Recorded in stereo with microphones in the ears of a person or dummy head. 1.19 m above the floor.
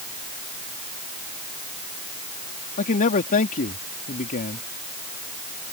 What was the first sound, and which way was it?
A man speaking, 45° left (ahead or behind).